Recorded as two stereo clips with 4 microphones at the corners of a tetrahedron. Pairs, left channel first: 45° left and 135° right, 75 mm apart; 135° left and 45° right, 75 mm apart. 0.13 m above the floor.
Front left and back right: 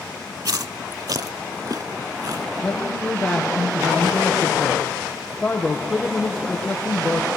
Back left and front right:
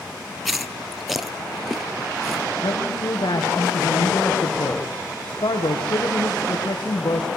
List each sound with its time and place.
0.5 s chewing: 135° right, 0.6 m
2.6 s a man speaking: 120° left, 4.5 m